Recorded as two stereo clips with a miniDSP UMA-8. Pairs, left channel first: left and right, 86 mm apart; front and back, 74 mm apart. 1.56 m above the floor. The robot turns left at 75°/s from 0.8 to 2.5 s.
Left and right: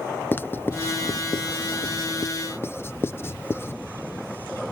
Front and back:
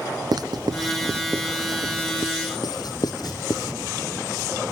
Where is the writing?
155° left; by 3.8 s 25° left.